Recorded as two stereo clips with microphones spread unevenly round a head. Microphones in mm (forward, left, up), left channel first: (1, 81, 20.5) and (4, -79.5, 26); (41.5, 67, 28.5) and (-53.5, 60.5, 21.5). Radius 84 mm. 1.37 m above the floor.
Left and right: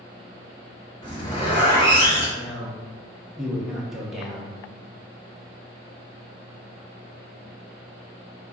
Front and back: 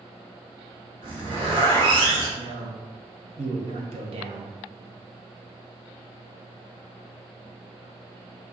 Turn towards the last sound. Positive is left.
turn(degrees=-175)